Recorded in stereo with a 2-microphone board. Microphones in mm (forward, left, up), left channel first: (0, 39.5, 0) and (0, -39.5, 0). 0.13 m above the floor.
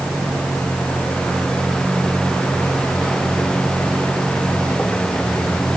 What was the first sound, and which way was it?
A vehicle, 15° left (ahead or behind).